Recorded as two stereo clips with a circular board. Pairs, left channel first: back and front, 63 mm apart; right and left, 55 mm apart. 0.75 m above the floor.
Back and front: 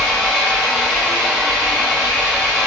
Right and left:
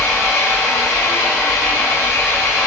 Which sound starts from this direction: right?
An engine running, at 0.0 s.